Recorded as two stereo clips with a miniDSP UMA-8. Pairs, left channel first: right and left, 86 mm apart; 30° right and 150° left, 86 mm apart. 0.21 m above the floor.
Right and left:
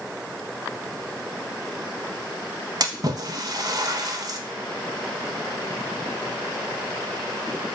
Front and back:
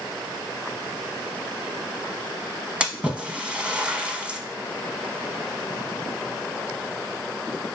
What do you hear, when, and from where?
2.8 s a splash: 75° left, 0.6 m